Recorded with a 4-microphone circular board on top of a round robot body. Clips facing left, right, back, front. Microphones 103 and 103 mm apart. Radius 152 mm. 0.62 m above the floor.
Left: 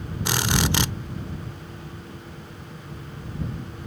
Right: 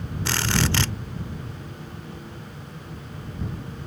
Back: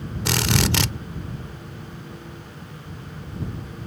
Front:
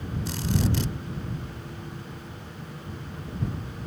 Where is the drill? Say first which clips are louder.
Left 1 dB, back 5 dB; 165° left.